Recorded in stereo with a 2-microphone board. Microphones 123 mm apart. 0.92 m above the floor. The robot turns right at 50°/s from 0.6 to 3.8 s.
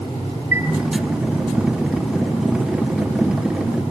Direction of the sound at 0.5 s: 20° right (ahead or behind).